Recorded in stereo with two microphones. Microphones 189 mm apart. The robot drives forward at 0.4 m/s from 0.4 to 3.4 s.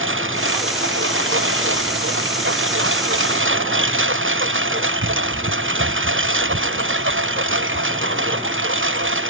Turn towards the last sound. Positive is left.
turn(degrees=-80)